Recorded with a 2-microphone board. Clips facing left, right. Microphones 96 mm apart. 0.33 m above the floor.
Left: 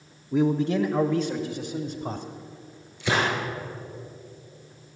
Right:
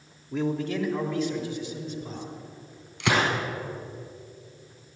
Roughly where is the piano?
I don't hear a piano.